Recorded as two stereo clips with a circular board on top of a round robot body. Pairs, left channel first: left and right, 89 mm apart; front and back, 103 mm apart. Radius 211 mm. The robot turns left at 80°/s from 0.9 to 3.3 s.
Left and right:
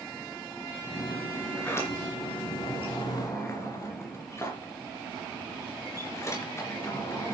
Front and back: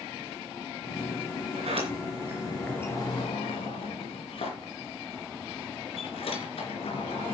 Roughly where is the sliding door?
Behind.